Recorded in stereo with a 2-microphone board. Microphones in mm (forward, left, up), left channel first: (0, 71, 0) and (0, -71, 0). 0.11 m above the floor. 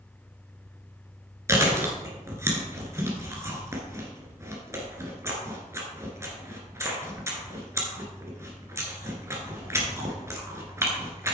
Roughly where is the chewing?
Centre.